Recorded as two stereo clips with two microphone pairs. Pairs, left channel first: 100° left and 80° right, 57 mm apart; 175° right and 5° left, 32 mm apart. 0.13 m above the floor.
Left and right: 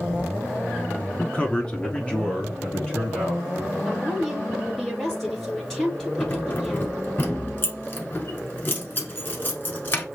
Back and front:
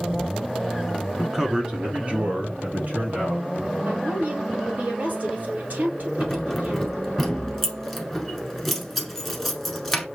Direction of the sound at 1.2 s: 90° left.